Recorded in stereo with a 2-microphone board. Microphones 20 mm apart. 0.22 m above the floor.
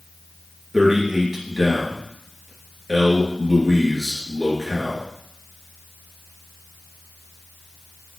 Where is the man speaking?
25° right (ahead or behind), 3 m.